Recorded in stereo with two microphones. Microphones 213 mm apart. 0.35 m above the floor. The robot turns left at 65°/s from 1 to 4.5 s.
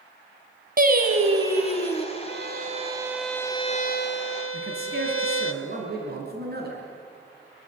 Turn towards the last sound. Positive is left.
turn(degrees=-50)  # may be behind; listen again after turning